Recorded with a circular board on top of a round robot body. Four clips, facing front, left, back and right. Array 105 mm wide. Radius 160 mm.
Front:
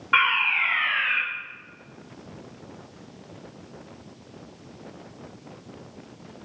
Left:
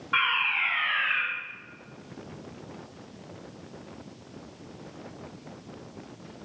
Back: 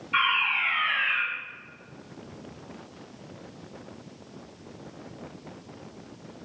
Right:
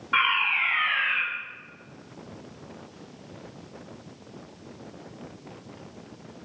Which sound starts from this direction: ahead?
A fire alarm, at 0.1 s.